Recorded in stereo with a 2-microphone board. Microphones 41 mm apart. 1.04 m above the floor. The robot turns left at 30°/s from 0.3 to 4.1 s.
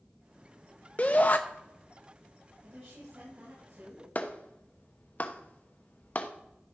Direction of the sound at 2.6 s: 55° right.